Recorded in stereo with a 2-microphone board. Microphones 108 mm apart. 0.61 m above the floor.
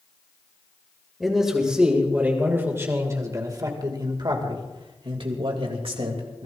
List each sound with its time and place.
1.2 s a man speaking: centre (ahead or behind), 3 m; by 6.5 s 70° right (ahead or behind), 3.5 m